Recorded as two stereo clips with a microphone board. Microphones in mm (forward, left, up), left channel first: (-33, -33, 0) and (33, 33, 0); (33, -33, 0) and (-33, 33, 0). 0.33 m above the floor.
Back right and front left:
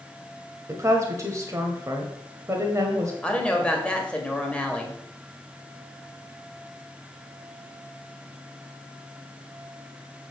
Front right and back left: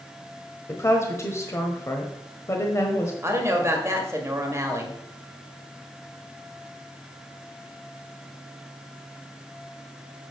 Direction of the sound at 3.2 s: 160° left.